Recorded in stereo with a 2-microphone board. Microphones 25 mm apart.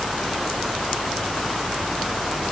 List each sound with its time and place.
Only background noise.